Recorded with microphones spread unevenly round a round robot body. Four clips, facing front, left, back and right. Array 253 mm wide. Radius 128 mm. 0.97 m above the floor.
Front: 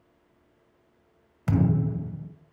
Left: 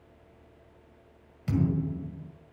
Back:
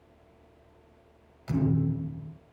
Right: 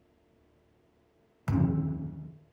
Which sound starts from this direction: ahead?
A thud, at 1.5 s.